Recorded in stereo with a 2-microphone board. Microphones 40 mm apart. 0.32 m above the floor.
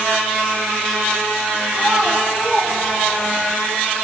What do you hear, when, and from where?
1.7 s a child speaking: 30° right (ahead or behind), 1.5 m; by 3.5 s 35° left (ahead or behind), 1.2 m